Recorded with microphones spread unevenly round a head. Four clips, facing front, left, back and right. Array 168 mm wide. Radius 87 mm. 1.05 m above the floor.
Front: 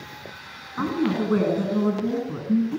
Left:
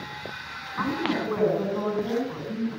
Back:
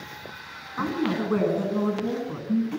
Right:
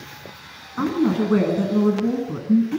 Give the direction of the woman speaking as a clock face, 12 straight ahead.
3 o'clock.